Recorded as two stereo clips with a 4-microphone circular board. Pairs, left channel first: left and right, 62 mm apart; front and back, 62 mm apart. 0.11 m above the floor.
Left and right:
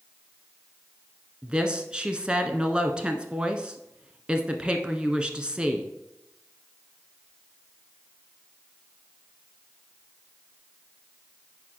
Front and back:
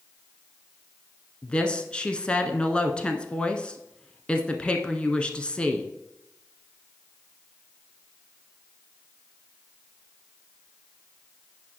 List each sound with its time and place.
1.4 s a woman speaking: 40° right, 1.1 m